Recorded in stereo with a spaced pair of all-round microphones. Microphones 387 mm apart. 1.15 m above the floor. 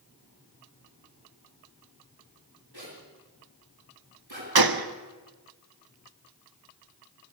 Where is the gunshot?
65° right (ahead or behind), 0.8 m.